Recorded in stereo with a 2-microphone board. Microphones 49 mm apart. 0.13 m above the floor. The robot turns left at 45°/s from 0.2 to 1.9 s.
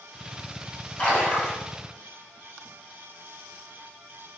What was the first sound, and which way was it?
A splash, 25° left (ahead or behind).